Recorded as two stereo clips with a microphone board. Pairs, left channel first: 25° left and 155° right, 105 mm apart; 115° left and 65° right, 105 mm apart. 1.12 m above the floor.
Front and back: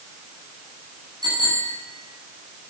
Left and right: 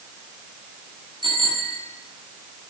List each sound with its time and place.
1.2 s a bicycle bell: 110° right, 7.5 m